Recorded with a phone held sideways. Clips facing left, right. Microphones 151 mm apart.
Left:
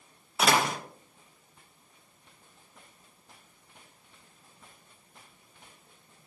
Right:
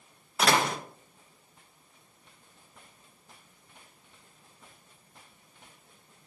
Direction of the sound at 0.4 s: 5° left (ahead or behind).